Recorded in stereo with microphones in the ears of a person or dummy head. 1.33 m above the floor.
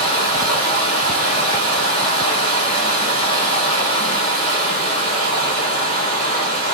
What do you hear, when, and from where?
0.0 s running water: 30° left (ahead or behind), 0.8 m